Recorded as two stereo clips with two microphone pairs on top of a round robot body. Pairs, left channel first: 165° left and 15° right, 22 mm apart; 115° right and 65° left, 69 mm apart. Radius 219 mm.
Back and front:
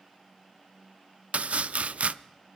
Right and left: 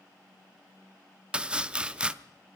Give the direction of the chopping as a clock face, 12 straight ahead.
12 o'clock.